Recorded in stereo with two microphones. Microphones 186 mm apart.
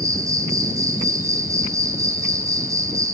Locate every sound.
0.0 s an insect: 15° right (ahead or behind), 3 m